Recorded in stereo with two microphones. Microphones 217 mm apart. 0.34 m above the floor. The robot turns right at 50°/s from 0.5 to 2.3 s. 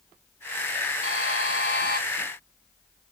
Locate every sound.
1.0 s a buzzer: 85° left, 1.1 m; by 2.0 s 135° left, 1.1 m